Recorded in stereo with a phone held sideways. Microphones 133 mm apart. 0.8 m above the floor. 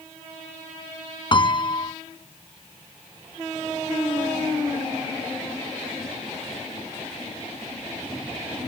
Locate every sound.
1.3 s a piano: 35° left (ahead or behind)